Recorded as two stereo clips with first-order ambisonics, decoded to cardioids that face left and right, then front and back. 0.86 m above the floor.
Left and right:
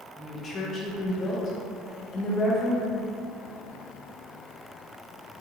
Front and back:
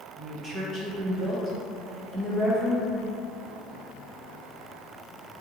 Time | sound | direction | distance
0.2 | a woman speaking | 135° left | 0.6 m